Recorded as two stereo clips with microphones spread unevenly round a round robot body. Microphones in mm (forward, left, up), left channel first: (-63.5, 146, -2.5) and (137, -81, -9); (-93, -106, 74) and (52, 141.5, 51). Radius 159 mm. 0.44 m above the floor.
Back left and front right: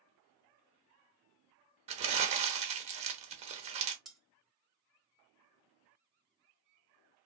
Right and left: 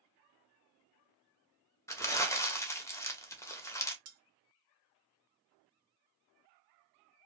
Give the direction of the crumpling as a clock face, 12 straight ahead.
1 o'clock.